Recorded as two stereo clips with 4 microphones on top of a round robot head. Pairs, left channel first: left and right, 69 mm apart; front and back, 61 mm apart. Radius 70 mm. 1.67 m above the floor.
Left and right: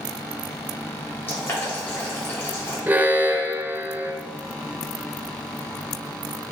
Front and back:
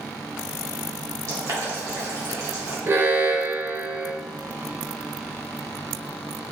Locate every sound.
1.3 s boiling: 145° left, 1.8 m
2.9 s an alarm: 145° right, 0.7 m